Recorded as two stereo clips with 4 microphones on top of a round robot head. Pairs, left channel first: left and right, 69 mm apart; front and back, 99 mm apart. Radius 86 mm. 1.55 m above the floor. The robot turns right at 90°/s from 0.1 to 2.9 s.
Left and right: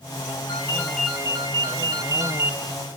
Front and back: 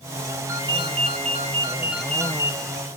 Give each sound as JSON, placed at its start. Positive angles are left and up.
{"t": 0.5, "sound": "a ringtone", "azimuth_deg": 135, "distance_m": 1.3}